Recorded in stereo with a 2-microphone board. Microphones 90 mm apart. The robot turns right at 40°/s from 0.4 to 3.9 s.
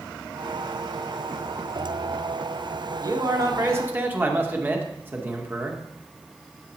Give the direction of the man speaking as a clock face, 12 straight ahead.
2 o'clock.